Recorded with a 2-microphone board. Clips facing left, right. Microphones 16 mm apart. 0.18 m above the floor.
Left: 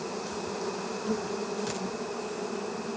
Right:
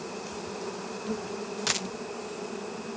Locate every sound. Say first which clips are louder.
0.0 s an insect: left 3 dB; 15° left (ahead or behind)
1.7 s a dropped coin: right 4 dB; 40° right (ahead or behind)